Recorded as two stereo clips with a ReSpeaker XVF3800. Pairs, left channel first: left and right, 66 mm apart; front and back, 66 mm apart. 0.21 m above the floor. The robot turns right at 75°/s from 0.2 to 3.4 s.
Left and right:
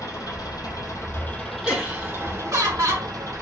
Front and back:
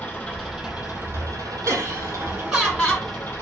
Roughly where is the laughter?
Behind.